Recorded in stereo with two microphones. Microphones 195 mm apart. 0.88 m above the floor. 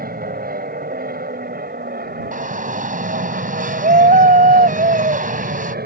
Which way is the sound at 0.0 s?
50° right (ahead or behind).